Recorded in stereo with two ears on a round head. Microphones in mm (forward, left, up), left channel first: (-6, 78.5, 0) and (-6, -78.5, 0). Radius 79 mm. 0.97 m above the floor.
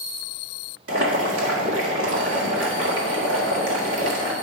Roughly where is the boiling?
Right.